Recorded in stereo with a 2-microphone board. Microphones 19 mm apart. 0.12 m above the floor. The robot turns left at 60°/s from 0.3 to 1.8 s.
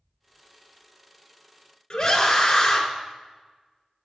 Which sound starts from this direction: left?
A scream, at 1.9 s.